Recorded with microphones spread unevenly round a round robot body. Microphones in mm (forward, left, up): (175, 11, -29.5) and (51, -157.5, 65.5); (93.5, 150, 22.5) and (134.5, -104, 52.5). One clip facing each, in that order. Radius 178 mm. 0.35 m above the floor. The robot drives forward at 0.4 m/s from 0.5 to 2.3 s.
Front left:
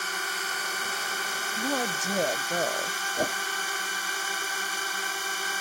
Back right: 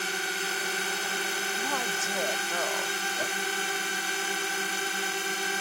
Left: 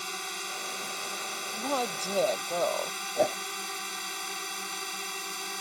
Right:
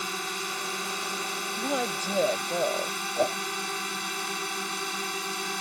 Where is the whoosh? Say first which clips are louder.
Front left 9 dB, even; 15° left.